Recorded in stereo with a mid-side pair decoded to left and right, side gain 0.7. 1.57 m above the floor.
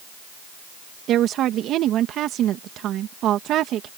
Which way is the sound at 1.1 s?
50° right.